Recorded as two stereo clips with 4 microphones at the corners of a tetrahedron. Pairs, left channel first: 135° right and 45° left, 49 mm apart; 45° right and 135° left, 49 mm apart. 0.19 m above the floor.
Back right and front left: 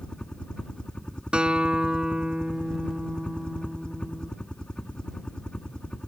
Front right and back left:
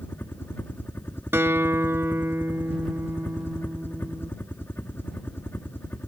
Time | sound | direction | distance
0.0 | a helicopter | 70° right | ?
1.3 | a guitar | 115° left | ?